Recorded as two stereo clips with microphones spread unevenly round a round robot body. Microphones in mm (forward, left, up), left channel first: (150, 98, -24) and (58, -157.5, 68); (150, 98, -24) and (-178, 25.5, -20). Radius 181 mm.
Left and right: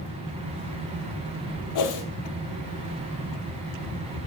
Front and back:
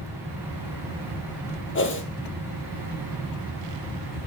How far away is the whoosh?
About 2 m.